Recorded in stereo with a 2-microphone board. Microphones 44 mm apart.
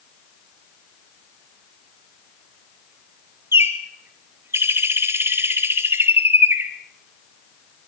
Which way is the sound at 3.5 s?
65° right (ahead or behind).